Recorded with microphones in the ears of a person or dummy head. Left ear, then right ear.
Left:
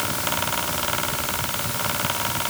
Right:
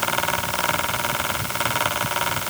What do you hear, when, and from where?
Only background noise.